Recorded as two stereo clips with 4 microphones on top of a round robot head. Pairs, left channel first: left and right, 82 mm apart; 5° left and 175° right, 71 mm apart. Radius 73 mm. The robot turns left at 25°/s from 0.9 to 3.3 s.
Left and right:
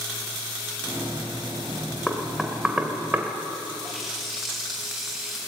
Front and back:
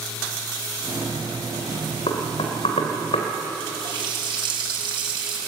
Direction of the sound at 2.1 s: 5° left.